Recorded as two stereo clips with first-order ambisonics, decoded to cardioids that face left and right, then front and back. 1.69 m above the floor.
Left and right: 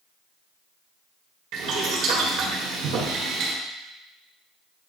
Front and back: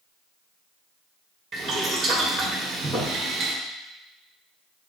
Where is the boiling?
110° right, 1.7 m.